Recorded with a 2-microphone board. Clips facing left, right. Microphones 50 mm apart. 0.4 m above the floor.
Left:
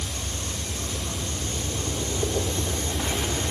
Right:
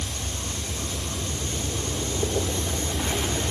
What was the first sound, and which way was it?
Only background noise.